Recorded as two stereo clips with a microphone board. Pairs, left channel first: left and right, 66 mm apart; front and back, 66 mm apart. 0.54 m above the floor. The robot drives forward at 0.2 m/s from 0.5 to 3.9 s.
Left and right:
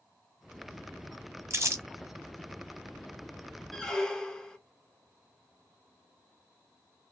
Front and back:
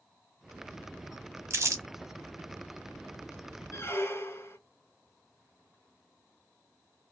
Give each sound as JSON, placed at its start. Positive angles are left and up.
{"t": 1.5, "sound": "crumpling", "azimuth_deg": -135, "distance_m": 0.8}
{"t": 3.7, "sound": "a squeak", "azimuth_deg": 15, "distance_m": 0.6}